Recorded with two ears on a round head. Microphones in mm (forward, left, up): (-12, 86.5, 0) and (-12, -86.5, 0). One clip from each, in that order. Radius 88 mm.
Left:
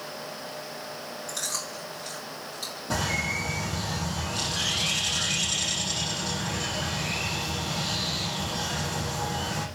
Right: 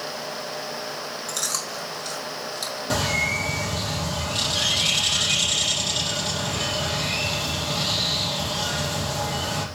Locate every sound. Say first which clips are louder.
1.3 s chewing: right 4 dB; 30° right (ahead or behind), 5.5 m
2.9 s a bird: right 4 dB; 40° right (ahead or behind), 4.5 m